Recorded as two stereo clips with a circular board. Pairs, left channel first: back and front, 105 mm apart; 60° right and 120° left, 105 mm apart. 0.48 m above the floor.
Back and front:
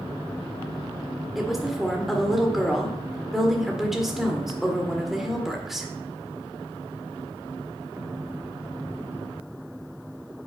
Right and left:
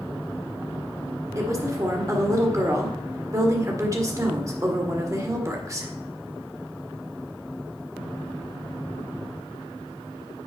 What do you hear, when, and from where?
1.4 s a woman speaking: 85° left, 1.6 m